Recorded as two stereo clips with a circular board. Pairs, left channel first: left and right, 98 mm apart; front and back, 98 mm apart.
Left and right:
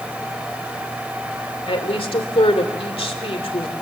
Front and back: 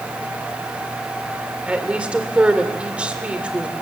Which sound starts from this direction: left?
A woman speaking, at 1.7 s.